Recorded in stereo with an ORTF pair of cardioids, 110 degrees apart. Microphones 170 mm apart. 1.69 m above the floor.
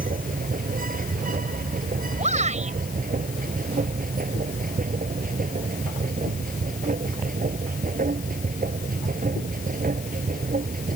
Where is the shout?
45° right.